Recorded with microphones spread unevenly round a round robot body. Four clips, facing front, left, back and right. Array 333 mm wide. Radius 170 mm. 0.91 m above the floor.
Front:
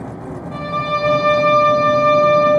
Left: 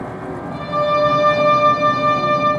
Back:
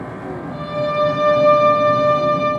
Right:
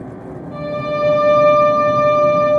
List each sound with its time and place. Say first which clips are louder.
0.5 s a violin: left 3 dB, even; 20° left, 0.8 m